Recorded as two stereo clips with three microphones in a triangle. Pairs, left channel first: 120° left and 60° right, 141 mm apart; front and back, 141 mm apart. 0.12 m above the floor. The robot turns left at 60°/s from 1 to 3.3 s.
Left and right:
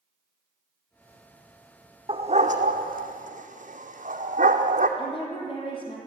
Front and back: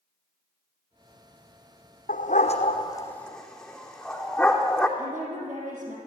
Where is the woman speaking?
170° left, 5 m.